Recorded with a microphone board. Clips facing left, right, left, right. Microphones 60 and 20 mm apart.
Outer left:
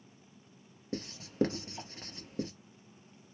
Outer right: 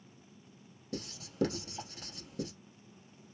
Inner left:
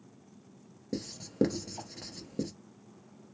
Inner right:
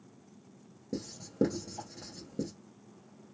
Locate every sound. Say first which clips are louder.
0.9 s writing: outer left 5 dB, inner left 2 dB; 35° left (ahead or behind), 1.0 m